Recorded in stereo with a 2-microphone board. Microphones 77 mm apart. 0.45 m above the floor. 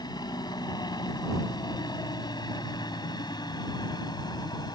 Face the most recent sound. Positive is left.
turn(degrees=65)  # may be behind; listen again after turning